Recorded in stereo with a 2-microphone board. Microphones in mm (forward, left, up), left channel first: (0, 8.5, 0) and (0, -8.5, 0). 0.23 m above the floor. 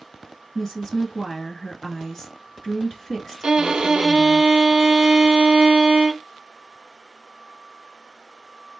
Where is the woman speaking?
30° left (ahead or behind), 1.4 m.